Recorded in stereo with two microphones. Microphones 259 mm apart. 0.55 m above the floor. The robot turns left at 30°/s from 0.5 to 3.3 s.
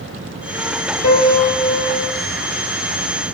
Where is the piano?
70° left, 2 m; by 2.1 s 40° left, 2 m.